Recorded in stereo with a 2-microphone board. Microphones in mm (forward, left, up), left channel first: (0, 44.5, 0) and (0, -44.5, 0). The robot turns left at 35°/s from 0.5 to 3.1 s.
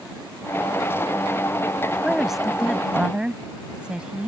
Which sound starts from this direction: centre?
A woman speaking, at 2.0 s.